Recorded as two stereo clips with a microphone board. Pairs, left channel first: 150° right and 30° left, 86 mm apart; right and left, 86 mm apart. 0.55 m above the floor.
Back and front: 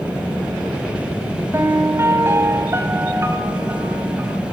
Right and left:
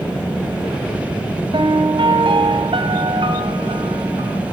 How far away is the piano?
About 3.5 m.